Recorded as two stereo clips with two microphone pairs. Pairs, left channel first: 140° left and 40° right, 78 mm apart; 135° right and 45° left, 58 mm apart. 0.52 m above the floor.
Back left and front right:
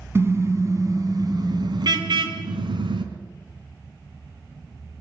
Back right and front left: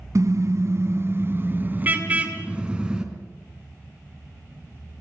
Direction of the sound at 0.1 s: 20° left.